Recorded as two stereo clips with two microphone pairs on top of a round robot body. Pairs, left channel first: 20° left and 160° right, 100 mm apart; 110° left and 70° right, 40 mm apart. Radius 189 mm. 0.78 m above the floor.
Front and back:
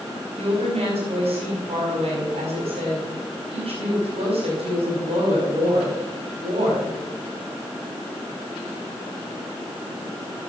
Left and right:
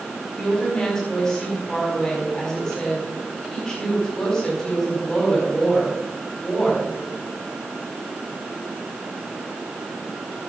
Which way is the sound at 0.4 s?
175° right.